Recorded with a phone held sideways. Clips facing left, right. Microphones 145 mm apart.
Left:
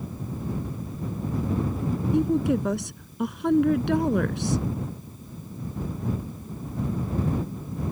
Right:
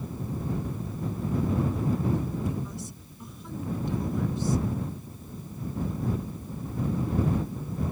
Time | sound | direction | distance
2.1 | a woman speaking | 80° left | ?